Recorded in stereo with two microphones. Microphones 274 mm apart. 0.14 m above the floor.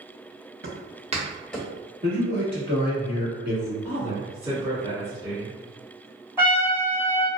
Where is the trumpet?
10° right (ahead or behind), 0.7 m.